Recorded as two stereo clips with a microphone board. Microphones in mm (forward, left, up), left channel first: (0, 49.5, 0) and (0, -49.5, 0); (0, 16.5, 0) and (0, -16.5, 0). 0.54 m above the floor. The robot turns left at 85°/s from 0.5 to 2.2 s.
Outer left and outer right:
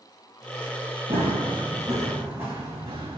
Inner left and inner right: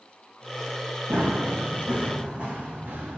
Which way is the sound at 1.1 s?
70° right (ahead or behind).